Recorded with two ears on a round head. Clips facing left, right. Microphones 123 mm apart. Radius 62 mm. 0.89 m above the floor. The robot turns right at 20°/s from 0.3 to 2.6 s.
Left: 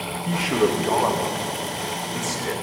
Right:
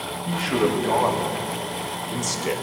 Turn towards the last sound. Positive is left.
turn(degrees=-150)